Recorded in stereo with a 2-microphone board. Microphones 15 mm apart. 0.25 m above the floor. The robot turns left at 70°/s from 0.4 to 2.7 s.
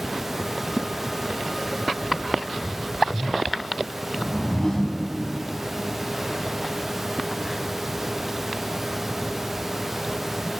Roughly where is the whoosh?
Left.